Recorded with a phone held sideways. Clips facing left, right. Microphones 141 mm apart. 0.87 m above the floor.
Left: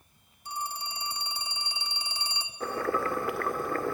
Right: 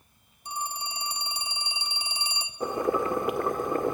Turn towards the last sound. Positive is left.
turn(degrees=-20)  # may be behind; listen again after turning